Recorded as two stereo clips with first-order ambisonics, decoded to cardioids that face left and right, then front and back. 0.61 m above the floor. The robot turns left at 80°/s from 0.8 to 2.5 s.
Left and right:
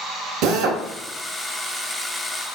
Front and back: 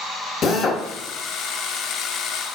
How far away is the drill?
About 0.8 m.